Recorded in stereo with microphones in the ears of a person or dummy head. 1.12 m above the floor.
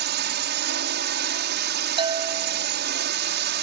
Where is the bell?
25° right (ahead or behind).